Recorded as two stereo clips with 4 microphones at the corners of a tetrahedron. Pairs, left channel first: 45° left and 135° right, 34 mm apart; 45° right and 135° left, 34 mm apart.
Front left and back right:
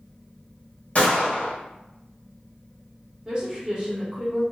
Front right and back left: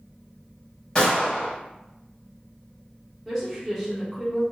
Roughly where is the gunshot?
Ahead.